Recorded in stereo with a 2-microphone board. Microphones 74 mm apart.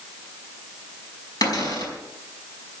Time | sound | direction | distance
1.4 | a cupboard door | 60° left (ahead or behind) | 5 m